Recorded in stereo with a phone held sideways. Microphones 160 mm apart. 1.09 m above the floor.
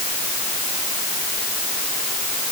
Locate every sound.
Only background noise.